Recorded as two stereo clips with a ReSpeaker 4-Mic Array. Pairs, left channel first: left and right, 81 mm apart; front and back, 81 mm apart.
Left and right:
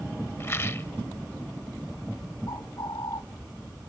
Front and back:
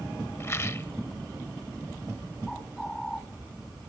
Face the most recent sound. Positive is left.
turn(degrees=85)